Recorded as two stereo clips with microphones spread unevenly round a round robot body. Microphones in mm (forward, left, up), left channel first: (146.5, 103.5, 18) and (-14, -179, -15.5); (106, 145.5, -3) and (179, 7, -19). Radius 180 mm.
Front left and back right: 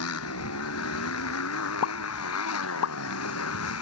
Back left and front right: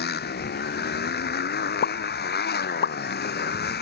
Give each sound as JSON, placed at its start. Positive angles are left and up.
{"t": 0.0, "sound": "a motorcycle", "azimuth_deg": 115}
{"t": 1.8, "sound": "a pop", "azimuth_deg": 115}